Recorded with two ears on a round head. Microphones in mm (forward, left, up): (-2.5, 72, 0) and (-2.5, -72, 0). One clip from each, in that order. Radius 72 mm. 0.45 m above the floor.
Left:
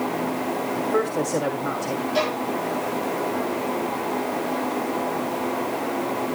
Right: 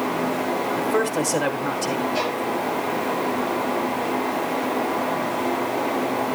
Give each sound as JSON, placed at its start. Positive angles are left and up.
{"t": 0.8, "sound": "a man speaking", "side_deg": -35, "distance_m": 1.3}
{"t": 2.1, "sound": "a violin", "side_deg": 35, "distance_m": 6.0}